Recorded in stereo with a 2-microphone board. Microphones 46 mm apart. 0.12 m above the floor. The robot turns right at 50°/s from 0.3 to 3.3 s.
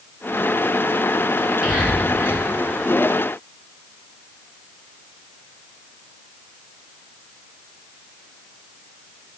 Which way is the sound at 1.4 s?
10° right (ahead or behind).